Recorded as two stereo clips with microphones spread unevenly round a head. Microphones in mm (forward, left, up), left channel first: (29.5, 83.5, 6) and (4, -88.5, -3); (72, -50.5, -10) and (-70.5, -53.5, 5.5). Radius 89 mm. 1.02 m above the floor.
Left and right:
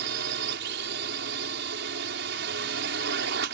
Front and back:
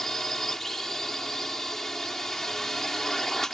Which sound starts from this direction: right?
A drone, at 0.0 s.